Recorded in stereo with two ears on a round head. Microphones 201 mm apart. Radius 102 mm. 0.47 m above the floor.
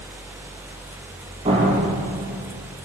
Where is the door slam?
25° right (ahead or behind), 8.5 m.